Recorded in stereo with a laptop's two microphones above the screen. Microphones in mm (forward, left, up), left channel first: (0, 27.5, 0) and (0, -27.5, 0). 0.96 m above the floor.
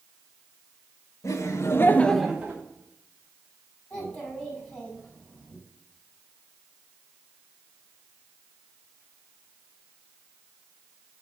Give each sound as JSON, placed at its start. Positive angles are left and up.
{"t": 1.2, "sound": "laughter", "side_deg": 70, "distance_m": 1.3}
{"t": 3.9, "sound": "a child speaking", "side_deg": 25, "distance_m": 4.5}